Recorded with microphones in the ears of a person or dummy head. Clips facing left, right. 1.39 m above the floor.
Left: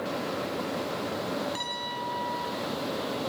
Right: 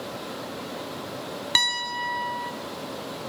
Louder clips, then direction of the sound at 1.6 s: Right 1 dB; 80° right.